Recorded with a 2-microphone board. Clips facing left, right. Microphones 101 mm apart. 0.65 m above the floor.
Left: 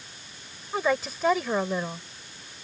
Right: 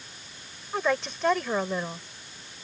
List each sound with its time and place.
0.7 s a woman speaking: 5° left (ahead or behind)